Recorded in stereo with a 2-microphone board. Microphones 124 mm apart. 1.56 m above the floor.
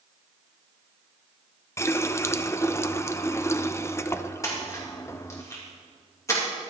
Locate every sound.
1.8 s a running tap: 20° left (ahead or behind), 0.5 m
4.4 s a splash: 25° left (ahead or behind), 3 m